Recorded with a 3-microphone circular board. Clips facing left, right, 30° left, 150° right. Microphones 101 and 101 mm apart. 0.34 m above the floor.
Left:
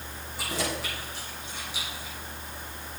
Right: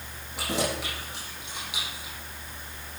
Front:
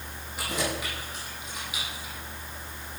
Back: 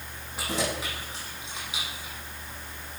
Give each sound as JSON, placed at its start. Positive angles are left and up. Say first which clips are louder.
{"t": 0.4, "sound": "keys jangling", "louder": "right 3 dB, back 1 dB", "azimuth_deg": -85, "distance_m": 10.0}